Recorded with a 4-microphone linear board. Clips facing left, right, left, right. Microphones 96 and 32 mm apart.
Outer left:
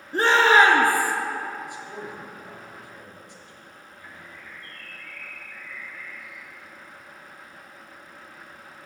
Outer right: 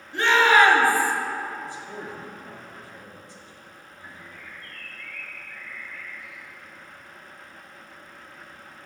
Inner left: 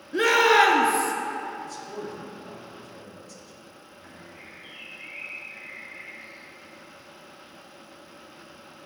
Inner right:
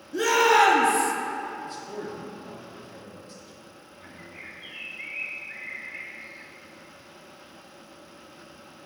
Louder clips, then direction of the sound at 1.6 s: Even, even; 35° right (ahead or behind).